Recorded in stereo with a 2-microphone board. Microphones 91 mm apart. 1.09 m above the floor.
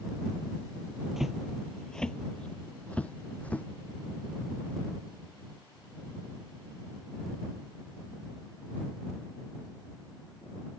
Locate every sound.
1.2 s footsteps: 5° right (ahead or behind); by 3.7 s 15° left (ahead or behind)